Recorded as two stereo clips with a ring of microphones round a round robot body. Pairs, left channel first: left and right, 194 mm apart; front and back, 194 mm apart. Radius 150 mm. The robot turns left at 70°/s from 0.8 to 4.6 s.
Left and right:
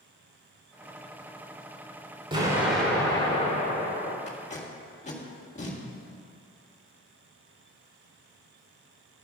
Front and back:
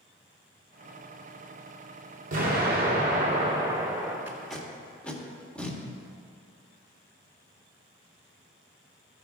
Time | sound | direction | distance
2.3 | an explosion | 150° right | 2.0 m
4.3 | tape being pulled | 105° left | 1.7 m